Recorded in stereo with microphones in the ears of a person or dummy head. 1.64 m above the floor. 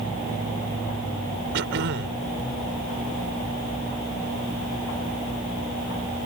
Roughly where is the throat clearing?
Right.